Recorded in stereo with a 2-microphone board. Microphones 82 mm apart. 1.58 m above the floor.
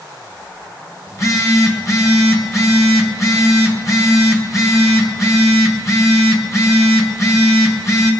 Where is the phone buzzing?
40° left (ahead or behind), 1.9 m.